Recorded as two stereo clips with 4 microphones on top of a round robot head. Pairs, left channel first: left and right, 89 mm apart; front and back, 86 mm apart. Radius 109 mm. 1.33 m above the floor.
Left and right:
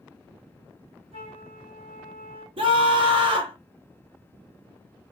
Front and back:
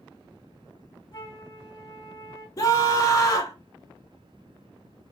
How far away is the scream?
About 0.7 m.